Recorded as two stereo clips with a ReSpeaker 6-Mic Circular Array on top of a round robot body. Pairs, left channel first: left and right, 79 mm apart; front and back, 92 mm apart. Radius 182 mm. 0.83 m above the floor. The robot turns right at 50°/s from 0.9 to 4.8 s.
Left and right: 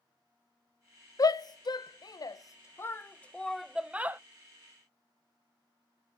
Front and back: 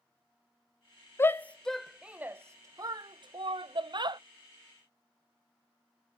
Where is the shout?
60° left, 0.8 m; by 4.2 s 150° right, 0.8 m.